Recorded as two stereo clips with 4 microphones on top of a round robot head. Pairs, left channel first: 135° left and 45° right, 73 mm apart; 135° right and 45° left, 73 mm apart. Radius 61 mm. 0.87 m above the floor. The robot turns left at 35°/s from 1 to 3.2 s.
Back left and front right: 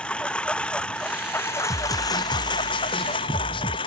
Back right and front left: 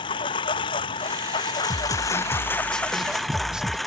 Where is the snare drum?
175° left; by 3.8 s 125° left.